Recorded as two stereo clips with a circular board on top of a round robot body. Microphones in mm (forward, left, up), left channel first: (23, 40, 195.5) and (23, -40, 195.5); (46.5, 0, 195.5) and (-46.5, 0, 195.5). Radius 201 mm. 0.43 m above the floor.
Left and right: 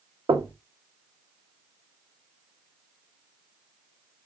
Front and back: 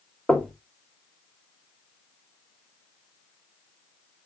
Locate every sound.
0.3 s knocking: 85° right, 1.7 m